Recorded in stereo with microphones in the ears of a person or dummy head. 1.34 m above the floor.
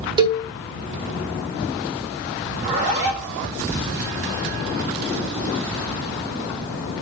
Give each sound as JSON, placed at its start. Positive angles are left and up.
{"t": 0.2, "sound": "a cowbell", "side_deg": -30, "distance_m": 0.6}
{"t": 2.5, "sound": "a zipper", "side_deg": -40, "distance_m": 0.9}